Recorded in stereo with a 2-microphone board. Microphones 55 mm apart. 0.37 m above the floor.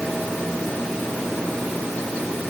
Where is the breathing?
I don't hear breathing.